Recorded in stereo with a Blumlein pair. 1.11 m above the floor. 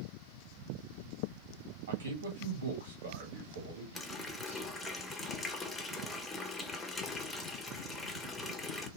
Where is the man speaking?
65° right, 1.4 m.